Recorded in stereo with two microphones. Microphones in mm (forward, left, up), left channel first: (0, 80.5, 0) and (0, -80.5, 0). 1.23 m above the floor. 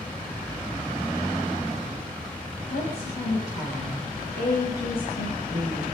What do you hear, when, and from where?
2.7 s a woman speaking: 90° left, 6 m